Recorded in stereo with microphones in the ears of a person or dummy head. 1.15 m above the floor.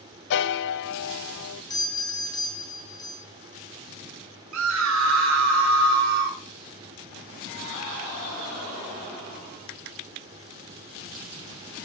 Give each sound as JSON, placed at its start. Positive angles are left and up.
{"t": 0.3, "sound": "a piano", "side_deg": 55, "distance_m": 0.7}
{"t": 1.7, "sound": "a doorbell", "side_deg": 20, "distance_m": 2.0}
{"t": 4.5, "sound": "a scream", "side_deg": -70, "distance_m": 3.0}